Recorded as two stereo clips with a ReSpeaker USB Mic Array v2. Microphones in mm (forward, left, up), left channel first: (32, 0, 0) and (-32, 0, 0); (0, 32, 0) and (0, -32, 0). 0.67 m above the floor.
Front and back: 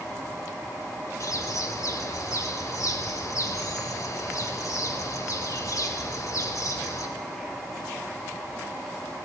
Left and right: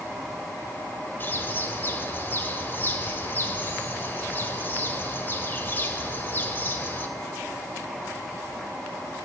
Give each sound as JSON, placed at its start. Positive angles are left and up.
{"t": 1.2, "sound": "a bird", "azimuth_deg": 30, "distance_m": 2.5}